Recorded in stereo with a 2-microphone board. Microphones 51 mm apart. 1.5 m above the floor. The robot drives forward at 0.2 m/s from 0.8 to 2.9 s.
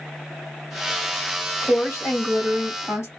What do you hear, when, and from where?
1.6 s a woman speaking: 80° left, 1.7 m; by 3.1 s 75° left (ahead or behind), 1.8 m